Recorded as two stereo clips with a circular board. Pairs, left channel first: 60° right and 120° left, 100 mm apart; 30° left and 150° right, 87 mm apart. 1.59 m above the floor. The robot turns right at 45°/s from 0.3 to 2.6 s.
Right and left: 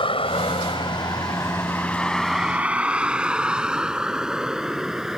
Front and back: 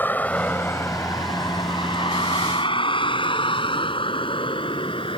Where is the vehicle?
35° right; by 5.2 s 35° left.